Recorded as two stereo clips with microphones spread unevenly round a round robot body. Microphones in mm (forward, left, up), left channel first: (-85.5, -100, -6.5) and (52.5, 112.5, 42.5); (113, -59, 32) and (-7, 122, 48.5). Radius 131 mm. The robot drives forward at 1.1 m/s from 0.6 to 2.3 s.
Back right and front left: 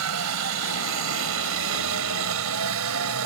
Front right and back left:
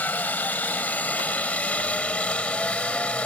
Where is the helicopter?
25° left.